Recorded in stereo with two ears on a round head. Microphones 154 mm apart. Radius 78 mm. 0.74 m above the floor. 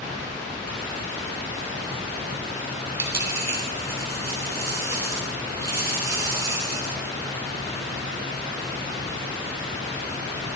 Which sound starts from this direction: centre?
A dropped coin, at 3.0 s.